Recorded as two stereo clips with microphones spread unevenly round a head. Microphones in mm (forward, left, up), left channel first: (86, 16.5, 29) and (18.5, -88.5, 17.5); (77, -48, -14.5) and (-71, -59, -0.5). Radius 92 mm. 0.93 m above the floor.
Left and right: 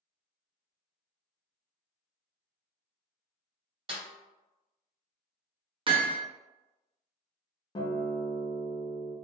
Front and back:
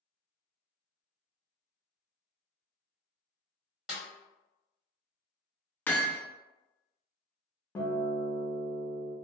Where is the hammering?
75° right, 0.7 m.